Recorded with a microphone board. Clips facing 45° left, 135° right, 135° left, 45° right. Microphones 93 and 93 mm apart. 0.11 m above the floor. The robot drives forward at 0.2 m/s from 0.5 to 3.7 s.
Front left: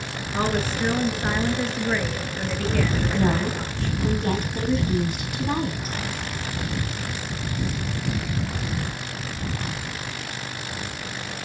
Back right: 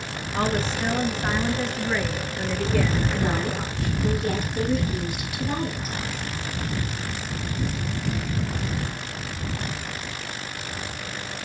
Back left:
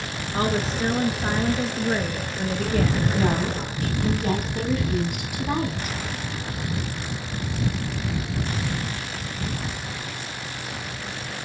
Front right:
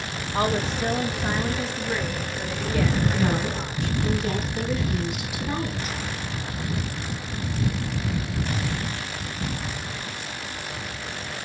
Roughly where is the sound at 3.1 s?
Left.